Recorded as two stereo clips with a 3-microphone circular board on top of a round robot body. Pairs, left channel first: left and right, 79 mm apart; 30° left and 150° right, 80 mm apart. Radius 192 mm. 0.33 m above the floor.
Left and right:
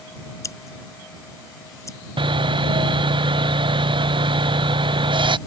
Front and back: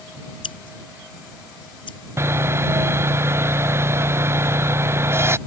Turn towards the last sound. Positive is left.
turn(degrees=-90)